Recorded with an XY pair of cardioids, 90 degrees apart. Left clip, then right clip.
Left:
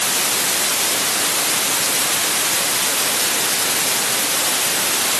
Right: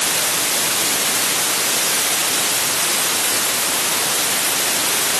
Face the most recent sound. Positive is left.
No sound to turn to.